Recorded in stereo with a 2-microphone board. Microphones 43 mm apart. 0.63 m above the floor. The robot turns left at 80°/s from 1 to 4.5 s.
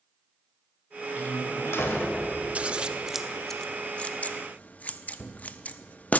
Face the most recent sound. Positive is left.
turn(degrees=30)  # may be behind; listen again after turning